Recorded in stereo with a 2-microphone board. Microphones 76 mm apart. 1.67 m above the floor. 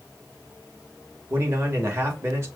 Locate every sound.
1.3 s a man speaking: 35° right (ahead or behind), 1.4 m